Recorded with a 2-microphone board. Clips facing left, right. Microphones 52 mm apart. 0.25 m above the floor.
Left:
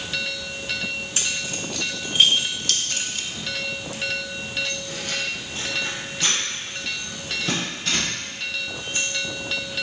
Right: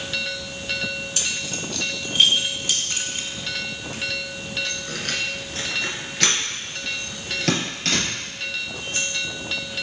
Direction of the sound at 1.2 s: 25° left (ahead or behind).